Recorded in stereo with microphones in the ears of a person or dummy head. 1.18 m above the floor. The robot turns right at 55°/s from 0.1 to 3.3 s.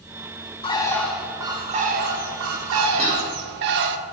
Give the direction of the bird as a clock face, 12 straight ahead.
7 o'clock.